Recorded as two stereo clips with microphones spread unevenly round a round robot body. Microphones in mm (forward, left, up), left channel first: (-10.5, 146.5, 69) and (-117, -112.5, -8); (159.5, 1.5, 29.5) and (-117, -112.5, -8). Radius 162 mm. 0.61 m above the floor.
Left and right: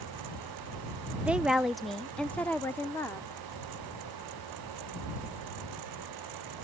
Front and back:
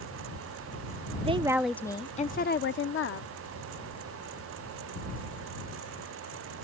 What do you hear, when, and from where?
1.2 s a woman speaking: 155° right; by 3.3 s 25° right